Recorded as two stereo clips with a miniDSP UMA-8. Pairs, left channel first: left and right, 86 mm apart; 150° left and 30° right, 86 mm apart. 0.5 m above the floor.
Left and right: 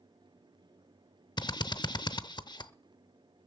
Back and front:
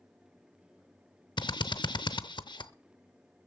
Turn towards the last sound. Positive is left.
turn(degrees=120)